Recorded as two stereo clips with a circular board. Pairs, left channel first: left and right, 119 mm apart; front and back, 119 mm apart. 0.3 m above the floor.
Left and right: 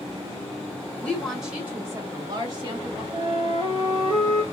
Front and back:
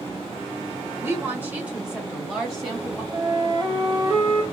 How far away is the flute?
About 1.2 m.